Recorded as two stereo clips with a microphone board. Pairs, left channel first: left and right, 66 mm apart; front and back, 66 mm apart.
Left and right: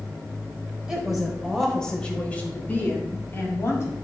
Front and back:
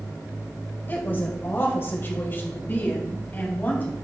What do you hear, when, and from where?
0.9 s a woman speaking: 15° right, 1.3 m; by 3.9 s 55° left, 2 m